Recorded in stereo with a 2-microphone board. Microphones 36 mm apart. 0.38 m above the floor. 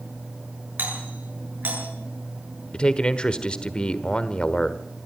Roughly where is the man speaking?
Left.